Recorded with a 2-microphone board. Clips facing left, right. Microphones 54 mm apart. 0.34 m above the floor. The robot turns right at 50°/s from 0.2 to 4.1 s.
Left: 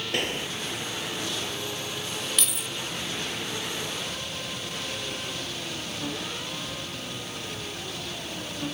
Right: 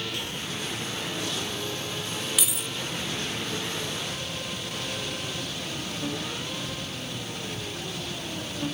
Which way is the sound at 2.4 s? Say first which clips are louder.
Even; 5° right (ahead or behind).